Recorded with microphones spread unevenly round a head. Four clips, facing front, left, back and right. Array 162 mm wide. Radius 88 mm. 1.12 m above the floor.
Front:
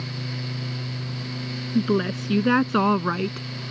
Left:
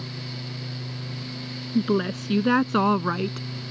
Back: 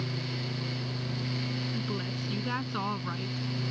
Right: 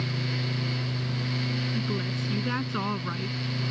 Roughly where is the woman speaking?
Ahead left.